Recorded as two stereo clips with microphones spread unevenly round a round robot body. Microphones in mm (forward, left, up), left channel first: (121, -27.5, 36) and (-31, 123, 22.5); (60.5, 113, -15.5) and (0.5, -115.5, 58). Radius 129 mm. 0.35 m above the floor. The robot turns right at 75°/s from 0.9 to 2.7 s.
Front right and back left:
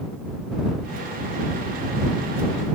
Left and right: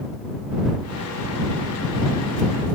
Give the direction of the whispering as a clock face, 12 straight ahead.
I don't hear whispering.